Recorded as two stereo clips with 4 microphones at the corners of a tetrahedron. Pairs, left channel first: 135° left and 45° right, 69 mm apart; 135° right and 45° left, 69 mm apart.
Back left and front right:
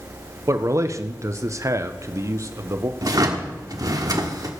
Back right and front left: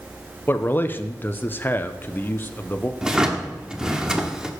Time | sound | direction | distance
0.5 | a man speaking | 80° right | 0.9 m
3.0 | a drawer | 35° right | 1.3 m